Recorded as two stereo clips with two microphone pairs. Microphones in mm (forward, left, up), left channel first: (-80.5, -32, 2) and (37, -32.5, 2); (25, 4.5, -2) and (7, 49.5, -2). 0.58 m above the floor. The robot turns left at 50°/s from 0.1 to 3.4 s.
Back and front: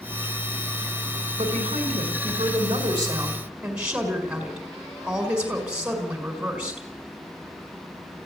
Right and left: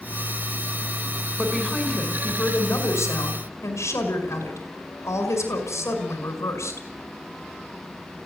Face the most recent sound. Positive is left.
turn(degrees=-80)